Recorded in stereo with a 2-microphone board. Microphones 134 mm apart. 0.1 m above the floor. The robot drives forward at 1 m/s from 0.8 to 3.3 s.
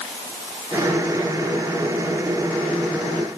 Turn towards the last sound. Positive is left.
No sound to turn to.